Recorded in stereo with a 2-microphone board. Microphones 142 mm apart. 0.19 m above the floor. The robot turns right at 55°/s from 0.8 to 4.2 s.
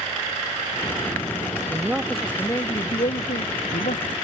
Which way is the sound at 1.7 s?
25° right.